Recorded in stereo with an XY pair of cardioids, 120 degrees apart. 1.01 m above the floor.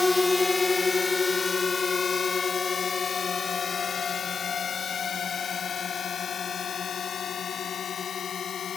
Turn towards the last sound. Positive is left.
turn(degrees=45)